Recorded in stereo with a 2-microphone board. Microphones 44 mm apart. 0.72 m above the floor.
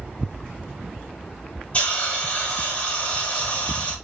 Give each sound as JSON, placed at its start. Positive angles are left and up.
{"t": 1.7, "sound": "a hiss", "side_deg": 30, "distance_m": 2.5}